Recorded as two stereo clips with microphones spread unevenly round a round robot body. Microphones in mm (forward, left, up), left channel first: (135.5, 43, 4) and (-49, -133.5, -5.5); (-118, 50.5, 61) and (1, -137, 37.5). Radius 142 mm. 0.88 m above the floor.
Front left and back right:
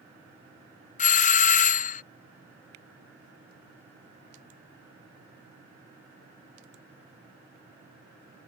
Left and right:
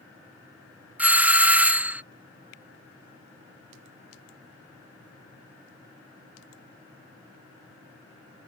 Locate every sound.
1.0 s a doorbell: 10° left